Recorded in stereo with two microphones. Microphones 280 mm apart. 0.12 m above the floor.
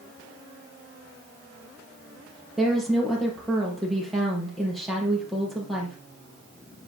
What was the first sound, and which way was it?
A woman speaking, centre (ahead or behind).